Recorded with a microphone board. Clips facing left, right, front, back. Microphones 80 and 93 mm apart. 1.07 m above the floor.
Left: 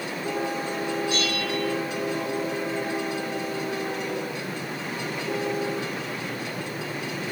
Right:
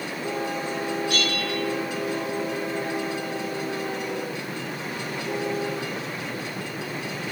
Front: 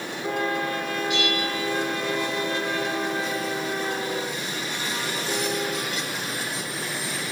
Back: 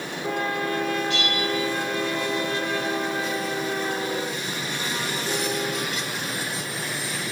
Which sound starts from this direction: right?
A bell, at 1.1 s.